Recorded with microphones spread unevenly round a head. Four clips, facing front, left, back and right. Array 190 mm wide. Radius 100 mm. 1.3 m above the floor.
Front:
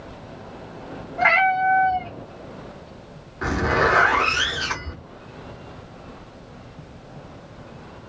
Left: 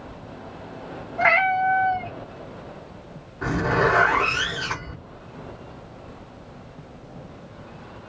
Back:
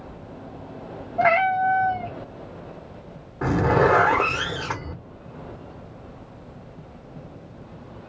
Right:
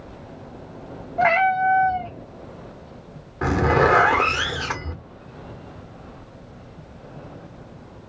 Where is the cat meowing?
110° right, 0.7 m.